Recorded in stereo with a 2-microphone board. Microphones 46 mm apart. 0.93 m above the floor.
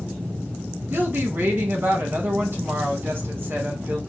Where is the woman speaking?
50° right (ahead or behind), 0.9 m.